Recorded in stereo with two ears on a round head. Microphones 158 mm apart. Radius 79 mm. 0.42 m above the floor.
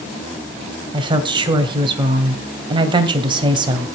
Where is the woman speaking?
25° right (ahead or behind), 2 m.